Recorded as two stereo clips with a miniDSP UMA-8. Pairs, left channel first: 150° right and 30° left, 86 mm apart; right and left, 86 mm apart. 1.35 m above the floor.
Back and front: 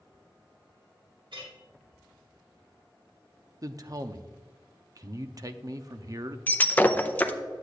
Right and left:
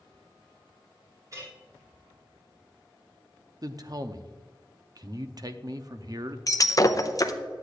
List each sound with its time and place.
1.3 s a clink: 40° left, 2.5 m
3.6 s a man speaking: 60° left, 0.6 m
6.5 s breaking glass: 95° right, 0.5 m